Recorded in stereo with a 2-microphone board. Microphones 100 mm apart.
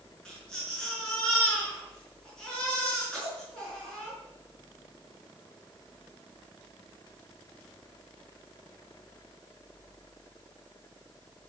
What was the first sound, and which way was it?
A baby crying, 10° left (ahead or behind).